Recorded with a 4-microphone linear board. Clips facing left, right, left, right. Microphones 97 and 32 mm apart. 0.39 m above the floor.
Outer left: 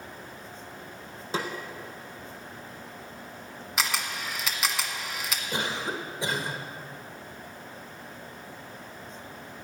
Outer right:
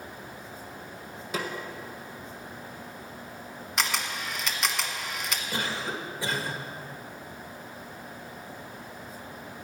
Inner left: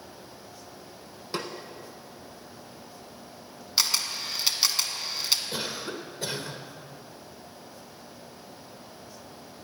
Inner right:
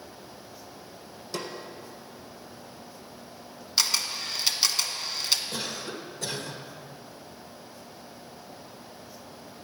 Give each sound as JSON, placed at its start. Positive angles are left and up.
{"t": 1.3, "sound": "a snare drum", "side_deg": 30, "distance_m": 1.3}
{"t": 3.8, "sound": "a camera shutter", "side_deg": 0, "distance_m": 1.1}
{"t": 5.5, "sound": "a cough", "side_deg": 20, "distance_m": 1.4}